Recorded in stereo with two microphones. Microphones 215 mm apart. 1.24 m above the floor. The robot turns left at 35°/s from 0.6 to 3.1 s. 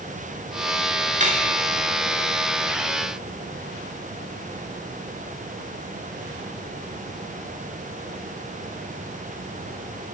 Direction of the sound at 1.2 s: 35° right (ahead or behind).